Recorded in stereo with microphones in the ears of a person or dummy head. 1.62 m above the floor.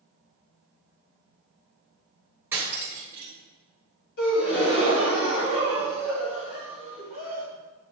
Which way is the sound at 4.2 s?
60° left (ahead or behind).